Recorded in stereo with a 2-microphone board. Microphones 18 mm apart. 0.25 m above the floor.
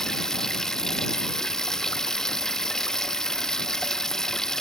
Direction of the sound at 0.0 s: 35° left (ahead or behind).